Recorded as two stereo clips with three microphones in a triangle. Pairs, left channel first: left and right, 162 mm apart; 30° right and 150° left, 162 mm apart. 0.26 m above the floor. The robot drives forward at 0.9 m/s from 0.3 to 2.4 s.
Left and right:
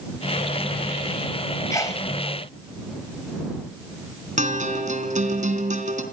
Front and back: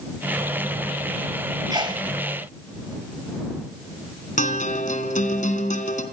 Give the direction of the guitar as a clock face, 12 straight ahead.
2 o'clock.